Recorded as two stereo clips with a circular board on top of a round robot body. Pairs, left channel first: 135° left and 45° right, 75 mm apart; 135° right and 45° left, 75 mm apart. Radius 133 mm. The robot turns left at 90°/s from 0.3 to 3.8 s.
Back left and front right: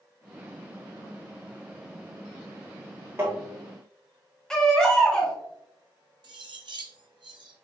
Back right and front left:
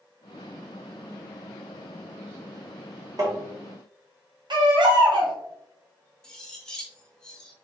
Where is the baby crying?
55° left, 1.3 m.